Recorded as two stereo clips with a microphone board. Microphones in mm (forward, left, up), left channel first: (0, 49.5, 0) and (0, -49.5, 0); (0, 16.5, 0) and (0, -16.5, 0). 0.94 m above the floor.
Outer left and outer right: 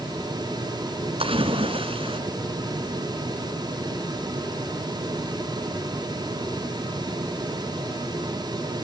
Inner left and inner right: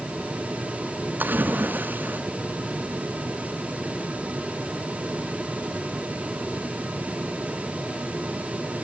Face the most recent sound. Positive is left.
turn(degrees=-75)  # may be behind; listen again after turning